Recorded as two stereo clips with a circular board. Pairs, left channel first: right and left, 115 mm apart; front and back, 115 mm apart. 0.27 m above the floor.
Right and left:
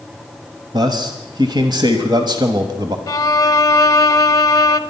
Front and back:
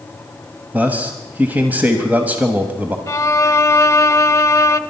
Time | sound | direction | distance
0.7 | a man speaking | 110° left | 1.2 m
3.1 | a violin | 50° right | 0.7 m